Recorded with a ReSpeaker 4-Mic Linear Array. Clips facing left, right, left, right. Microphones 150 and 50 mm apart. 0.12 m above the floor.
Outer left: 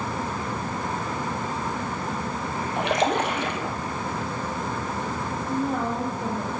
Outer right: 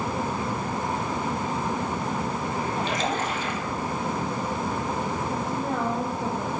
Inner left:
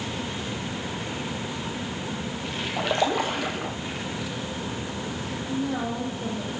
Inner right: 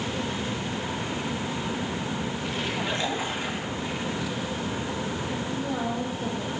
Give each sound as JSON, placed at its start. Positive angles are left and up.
{"t": 2.8, "sound": "a splash", "side_deg": 70, "distance_m": 1.3}
{"t": 5.5, "sound": "a woman speaking", "side_deg": 15, "distance_m": 4.5}